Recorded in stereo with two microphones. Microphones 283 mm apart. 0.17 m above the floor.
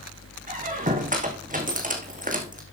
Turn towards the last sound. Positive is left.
turn(degrees=-30)  # may be behind; listen again after turning